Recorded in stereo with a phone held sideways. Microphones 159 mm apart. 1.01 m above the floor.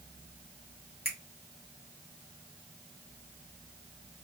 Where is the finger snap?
80° left, 2 m.